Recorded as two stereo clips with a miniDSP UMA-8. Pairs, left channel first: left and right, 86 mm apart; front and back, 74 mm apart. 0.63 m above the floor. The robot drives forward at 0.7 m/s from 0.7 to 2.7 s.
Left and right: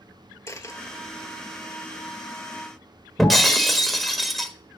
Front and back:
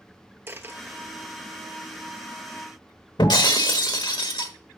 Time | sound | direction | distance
0.5 | a dropped coin | 130° left | 0.9 m
3.2 | breaking glass | straight ahead | 1.2 m